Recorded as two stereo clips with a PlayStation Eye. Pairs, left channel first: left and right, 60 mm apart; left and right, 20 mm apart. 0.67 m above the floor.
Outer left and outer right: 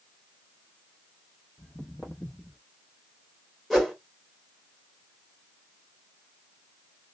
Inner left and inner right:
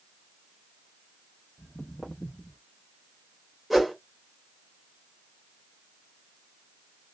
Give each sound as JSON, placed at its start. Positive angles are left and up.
{"t": 1.6, "sound": "footsteps", "side_deg": 40, "distance_m": 1.3}
{"t": 3.7, "sound": "a whoosh", "side_deg": 0, "distance_m": 1.7}